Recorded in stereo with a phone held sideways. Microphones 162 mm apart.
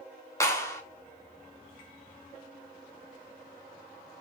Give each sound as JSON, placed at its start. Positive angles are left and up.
{"t": 0.4, "sound": "a clap", "side_deg": 20, "distance_m": 3.5}